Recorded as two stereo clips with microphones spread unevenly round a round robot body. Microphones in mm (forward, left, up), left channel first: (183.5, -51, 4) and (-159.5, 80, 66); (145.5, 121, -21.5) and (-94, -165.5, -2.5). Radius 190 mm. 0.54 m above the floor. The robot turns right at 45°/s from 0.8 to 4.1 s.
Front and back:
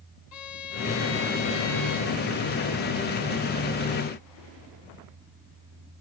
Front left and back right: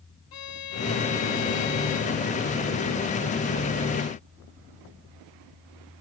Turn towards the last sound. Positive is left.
turn(degrees=170)